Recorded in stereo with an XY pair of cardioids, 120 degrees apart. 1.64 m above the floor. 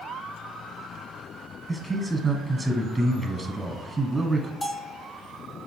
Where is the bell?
25° left, 0.5 m.